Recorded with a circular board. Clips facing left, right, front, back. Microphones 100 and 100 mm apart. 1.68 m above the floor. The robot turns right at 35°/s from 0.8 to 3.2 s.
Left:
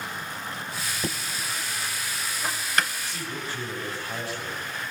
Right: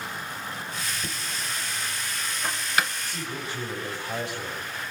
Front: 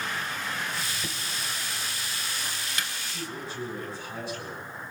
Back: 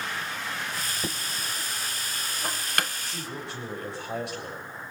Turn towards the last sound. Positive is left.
turn(degrees=-160)